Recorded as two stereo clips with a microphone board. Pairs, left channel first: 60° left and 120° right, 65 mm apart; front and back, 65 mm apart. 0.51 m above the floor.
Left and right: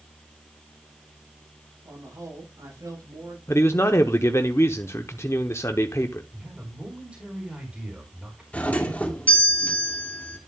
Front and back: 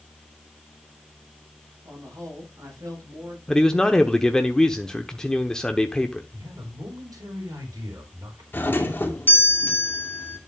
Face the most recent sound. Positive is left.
turn(degrees=15)